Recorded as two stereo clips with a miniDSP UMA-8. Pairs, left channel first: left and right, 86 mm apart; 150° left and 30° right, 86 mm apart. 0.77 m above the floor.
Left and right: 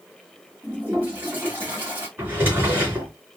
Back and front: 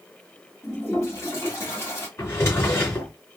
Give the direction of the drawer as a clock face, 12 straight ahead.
5 o'clock.